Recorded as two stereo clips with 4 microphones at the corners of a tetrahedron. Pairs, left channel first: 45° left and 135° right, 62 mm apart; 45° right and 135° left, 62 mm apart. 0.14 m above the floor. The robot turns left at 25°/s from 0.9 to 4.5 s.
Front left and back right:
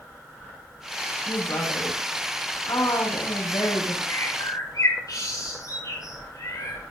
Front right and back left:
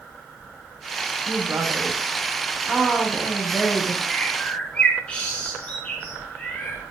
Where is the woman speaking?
90° left, 8 m; by 4.0 s 20° left, 8 m.